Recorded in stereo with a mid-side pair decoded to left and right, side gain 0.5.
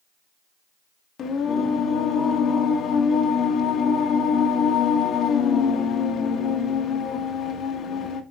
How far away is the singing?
About 1.3 m.